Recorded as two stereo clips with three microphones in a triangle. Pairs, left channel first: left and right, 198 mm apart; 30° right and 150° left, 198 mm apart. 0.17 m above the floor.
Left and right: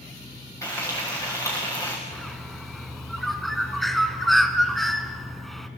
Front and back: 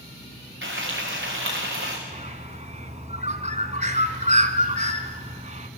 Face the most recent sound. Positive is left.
turn(degrees=180)